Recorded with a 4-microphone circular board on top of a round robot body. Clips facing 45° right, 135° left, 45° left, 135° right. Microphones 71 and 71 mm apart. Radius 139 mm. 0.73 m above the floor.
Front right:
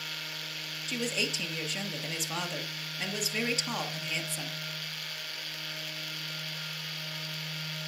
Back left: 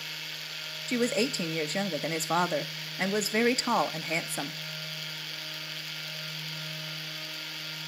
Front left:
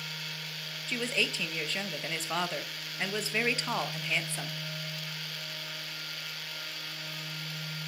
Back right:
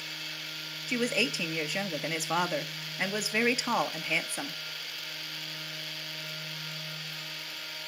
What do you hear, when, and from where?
0.9 s a woman speaking: 155° left, 1.1 m